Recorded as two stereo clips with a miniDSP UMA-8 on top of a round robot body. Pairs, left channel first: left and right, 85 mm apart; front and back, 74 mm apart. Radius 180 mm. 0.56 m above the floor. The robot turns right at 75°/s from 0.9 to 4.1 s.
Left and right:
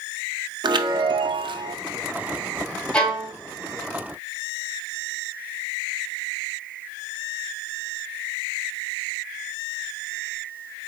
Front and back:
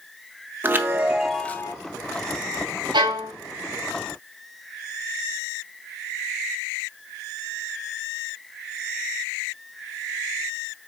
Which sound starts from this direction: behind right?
A chime, at 0.6 s.